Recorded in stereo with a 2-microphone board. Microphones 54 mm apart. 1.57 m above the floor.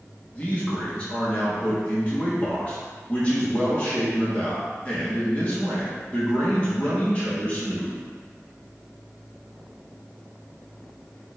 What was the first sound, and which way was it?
A man speaking, 25° left (ahead or behind).